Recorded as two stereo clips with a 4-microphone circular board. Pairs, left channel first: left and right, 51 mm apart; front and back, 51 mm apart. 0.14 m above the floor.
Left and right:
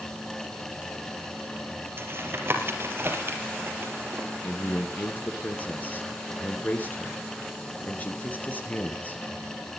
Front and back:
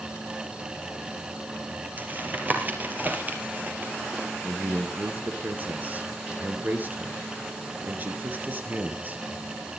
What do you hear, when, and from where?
2.0 s tapping: 130° right, 3 m
4.4 s a man speaking: 135° left, 2.5 m